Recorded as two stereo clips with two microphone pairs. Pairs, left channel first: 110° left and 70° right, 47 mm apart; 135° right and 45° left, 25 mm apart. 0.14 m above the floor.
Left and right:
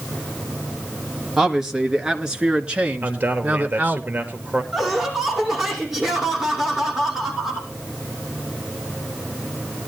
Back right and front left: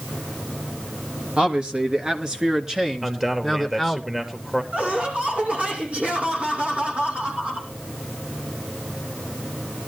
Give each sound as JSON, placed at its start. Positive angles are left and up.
{"t": 1.4, "sound": "a man speaking", "azimuth_deg": 10, "distance_m": 2.5}
{"t": 3.0, "sound": "a man speaking", "azimuth_deg": -25, "distance_m": 2.5}
{"t": 4.7, "sound": "laughter", "azimuth_deg": 15, "distance_m": 6.0}